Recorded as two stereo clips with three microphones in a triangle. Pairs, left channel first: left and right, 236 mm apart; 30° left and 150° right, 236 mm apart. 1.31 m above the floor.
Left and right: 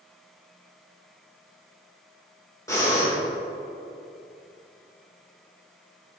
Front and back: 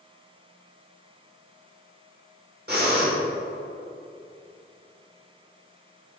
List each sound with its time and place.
2.7 s breathing: 170° left, 2 m